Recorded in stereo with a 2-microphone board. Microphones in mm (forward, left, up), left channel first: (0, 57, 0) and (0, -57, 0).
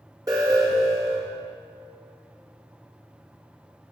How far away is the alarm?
About 1.9 m.